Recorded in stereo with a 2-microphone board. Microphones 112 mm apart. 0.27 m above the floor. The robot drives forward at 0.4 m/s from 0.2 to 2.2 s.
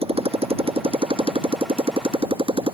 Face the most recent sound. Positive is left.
turn(degrees=-55)  # may be behind; listen again after turning